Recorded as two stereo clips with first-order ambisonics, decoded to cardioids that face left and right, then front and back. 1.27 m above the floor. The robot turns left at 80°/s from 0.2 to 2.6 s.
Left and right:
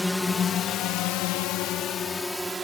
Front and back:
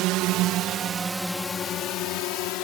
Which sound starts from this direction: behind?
A drone, at 0.0 s.